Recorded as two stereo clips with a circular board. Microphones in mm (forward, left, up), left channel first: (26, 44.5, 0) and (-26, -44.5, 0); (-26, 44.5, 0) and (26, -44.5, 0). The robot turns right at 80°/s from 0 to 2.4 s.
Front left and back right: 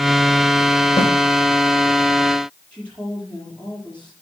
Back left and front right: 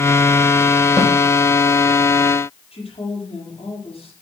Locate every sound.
1.0 s a snare drum: 25° left, 5 m; by 1.1 s 40° left, 5 m
2.7 s a woman speaking: 140° left, 5.5 m